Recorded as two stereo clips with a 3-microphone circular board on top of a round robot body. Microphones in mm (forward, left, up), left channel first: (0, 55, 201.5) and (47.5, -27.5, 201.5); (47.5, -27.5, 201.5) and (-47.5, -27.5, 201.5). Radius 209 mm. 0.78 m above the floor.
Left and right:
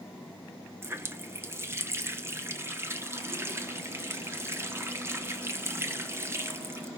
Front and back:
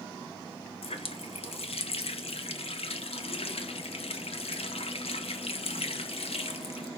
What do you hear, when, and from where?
0.8 s a running tap: 5° left, 1.4 m